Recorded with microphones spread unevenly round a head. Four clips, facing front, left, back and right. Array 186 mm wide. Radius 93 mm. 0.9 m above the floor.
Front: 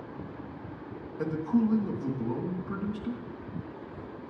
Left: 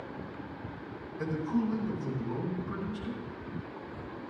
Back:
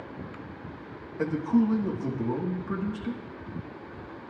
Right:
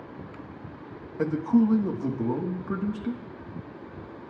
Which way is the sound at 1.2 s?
100° right.